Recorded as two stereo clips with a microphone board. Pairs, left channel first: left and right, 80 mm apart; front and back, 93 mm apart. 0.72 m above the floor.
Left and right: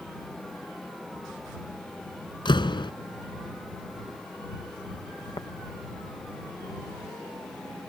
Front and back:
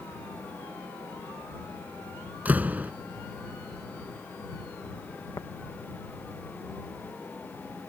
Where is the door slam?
105° left.